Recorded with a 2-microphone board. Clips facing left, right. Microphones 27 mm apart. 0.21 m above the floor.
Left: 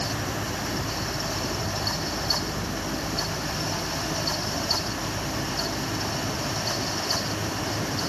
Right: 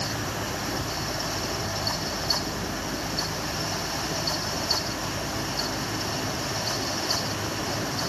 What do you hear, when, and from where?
Only background noise.